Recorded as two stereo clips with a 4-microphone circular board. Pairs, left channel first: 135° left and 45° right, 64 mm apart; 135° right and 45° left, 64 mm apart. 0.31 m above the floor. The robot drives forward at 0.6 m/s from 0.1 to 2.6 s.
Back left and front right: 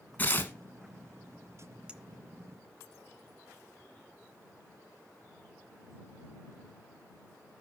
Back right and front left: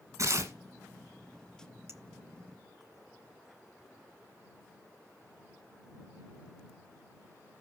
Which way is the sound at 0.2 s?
75° left.